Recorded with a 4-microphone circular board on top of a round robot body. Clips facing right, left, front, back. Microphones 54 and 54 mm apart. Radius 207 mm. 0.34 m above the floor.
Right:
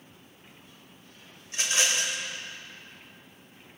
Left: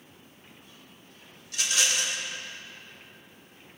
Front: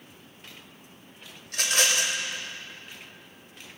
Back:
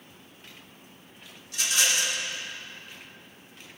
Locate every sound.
1.5 s a rattle: 30° right, 2.0 m